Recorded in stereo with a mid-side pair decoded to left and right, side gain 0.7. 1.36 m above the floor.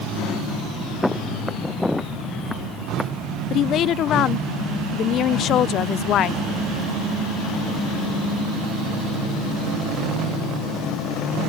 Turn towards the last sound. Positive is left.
turn(degrees=50)